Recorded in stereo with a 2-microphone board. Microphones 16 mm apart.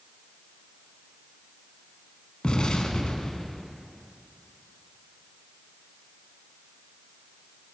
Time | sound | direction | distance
2.4 | an explosion | 85° left | 1.1 m